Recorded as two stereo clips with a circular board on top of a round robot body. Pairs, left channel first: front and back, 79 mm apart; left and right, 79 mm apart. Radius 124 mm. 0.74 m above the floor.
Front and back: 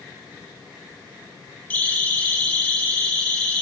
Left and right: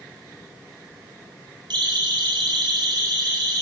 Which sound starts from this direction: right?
A siren, at 1.7 s.